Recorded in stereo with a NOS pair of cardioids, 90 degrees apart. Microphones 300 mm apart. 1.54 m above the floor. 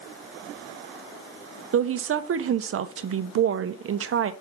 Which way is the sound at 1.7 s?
45° right.